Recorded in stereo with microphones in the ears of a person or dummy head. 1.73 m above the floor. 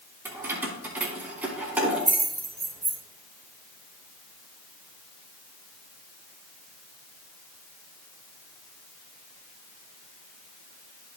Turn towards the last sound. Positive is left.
turn(degrees=-5)  # may be behind; listen again after turning